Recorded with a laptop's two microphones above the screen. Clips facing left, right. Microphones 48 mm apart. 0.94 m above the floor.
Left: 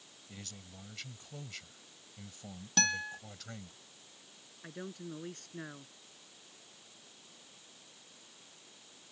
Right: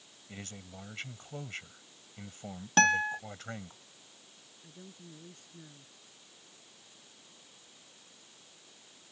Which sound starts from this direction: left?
A man speaking, at 4.6 s.